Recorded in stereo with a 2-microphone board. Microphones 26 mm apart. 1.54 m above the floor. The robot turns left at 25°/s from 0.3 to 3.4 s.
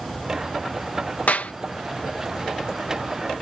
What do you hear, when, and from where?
1.3 s a clap: 80° left; by 1.5 s 75° left (ahead or behind)